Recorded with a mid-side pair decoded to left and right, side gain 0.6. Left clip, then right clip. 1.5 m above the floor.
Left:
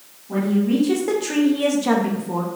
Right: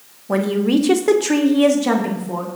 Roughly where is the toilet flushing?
I don't hear a toilet flushing.